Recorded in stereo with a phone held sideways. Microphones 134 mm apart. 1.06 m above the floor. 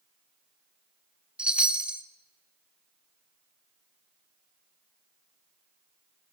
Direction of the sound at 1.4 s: 5° right (ahead or behind).